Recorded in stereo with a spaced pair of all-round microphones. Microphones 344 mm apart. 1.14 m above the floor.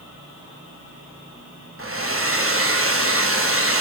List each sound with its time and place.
1.8 s a hair dryer: 40° right (ahead or behind), 1.0 m